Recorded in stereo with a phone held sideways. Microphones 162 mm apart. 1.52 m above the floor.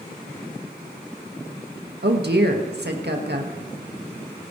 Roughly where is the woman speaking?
Right.